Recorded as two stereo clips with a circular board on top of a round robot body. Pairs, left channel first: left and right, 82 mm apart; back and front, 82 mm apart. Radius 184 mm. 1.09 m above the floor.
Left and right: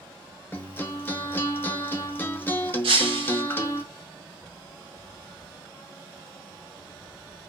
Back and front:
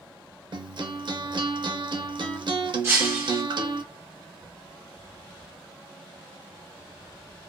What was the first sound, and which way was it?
A guitar, 25° left.